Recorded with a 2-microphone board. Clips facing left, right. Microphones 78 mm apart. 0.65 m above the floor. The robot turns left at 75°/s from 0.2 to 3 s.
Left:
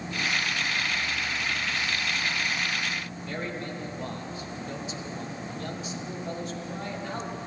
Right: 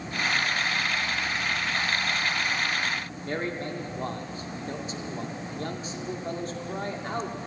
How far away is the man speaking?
About 1.9 m.